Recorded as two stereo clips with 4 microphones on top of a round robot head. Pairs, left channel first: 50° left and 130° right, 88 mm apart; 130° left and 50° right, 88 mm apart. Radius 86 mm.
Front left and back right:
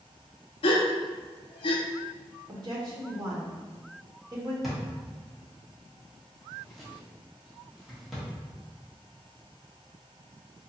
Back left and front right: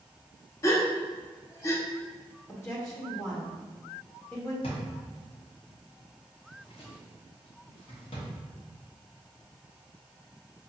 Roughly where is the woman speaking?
Behind.